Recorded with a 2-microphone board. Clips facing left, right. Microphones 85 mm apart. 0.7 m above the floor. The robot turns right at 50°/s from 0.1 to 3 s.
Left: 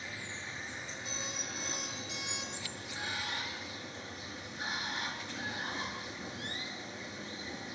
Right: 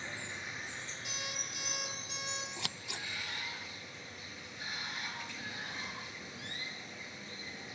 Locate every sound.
0.0 s running water: 30° right, 5.5 m; by 7.8 s 115° left, 5.5 m
1.1 s an alarm clock: 105° right, 9 m; by 2.5 s 35° right, 9 m
2.6 s scissors: 80° right, 0.5 m; by 3.1 s 70° right (ahead or behind), 0.5 m